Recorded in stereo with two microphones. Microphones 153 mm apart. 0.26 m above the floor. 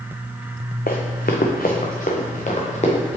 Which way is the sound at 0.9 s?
75° left (ahead or behind).